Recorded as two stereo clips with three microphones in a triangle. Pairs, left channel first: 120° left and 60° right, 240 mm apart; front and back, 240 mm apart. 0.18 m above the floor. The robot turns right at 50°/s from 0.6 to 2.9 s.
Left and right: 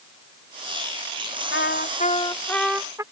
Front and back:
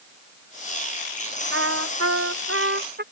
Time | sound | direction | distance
1.5 | a trumpet | 155° left | ?